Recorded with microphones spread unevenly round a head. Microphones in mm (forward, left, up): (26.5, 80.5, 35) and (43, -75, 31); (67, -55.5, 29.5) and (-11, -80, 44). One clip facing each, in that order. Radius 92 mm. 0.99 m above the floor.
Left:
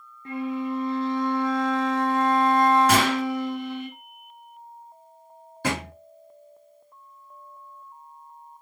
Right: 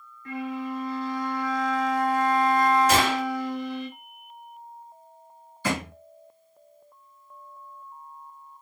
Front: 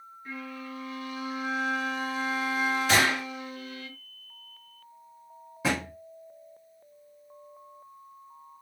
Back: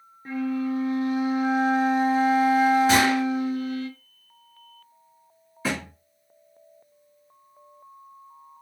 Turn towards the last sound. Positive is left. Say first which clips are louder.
# even, even
turn(degrees=75)